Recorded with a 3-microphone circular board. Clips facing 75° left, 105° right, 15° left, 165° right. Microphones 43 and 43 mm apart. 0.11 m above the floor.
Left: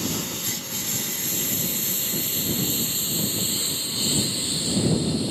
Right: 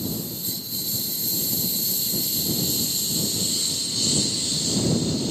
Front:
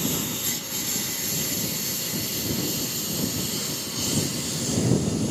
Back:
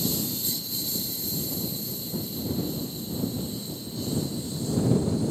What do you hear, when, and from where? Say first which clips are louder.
0.0 s a lawn mower: left 2 dB, front 2 dB; 50° left; by 5.3 s straight ahead